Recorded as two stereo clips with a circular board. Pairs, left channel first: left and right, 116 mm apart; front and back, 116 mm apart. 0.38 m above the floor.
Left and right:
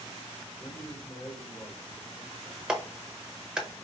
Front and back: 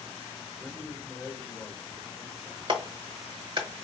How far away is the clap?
About 1.0 m.